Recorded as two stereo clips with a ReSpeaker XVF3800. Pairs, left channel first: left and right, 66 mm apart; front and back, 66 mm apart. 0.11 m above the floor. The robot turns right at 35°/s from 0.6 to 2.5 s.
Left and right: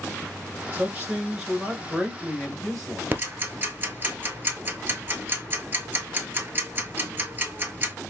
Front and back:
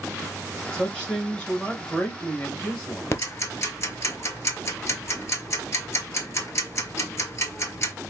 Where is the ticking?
35° right, 0.7 m.